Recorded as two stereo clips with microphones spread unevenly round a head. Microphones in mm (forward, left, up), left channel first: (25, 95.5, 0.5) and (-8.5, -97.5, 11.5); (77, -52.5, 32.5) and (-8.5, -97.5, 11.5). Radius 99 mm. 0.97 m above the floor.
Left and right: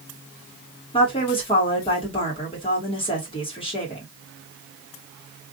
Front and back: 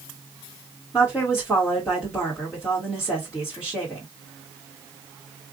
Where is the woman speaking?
135° left, 1.3 m.